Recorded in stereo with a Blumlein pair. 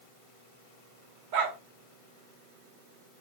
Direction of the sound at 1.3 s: 50° right.